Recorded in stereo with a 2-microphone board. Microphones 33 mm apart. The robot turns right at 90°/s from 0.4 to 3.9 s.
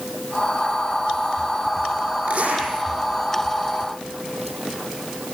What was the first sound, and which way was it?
A zipper, 115° right.